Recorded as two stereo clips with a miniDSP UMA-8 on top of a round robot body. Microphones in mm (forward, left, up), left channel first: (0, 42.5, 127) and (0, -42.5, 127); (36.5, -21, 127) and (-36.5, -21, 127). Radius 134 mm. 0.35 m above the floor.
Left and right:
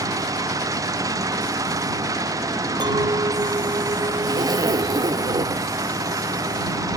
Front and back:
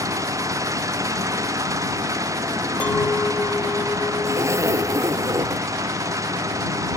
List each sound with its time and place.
0.0 s an engine running: 140° right
2.8 s a clink: 65° right
4.2 s a zipper: 135° right